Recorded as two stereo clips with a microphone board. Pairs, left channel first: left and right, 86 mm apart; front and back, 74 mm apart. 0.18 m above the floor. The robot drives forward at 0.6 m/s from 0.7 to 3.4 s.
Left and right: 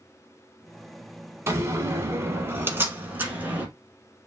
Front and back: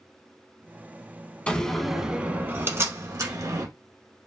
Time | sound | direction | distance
1.5 | a door slam | 60° right | 0.8 m